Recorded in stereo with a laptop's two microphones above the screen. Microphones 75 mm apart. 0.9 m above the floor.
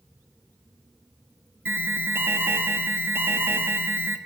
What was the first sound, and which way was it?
An alarm, 35° right (ahead or behind).